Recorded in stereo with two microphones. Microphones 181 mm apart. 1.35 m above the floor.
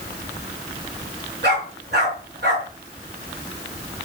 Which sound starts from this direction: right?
A dog barking, at 1.4 s.